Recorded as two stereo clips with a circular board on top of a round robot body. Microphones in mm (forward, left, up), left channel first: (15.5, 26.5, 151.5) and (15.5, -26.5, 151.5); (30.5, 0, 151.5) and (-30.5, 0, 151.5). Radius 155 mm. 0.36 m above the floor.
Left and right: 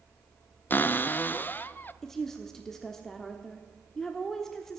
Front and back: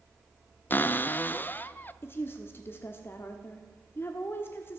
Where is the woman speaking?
10° left, 1.2 m.